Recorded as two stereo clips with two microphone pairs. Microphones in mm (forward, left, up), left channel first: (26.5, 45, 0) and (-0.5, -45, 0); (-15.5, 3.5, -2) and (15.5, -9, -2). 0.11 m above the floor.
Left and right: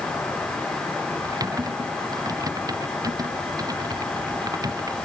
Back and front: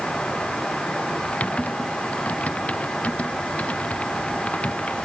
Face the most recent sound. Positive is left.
turn(degrees=-155)